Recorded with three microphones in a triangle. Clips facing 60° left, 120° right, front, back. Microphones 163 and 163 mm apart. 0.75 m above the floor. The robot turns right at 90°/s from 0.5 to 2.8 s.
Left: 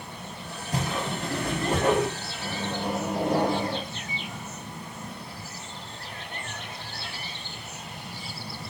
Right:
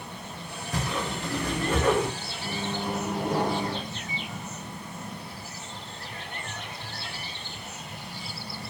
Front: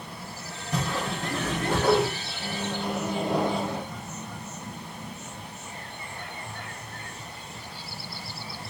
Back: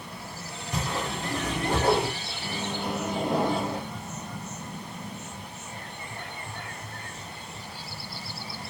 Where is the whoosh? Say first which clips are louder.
Left 1 dB, front 2 dB; 15° left, 1.7 m; by 2.1 s 140° left, 1.7 m.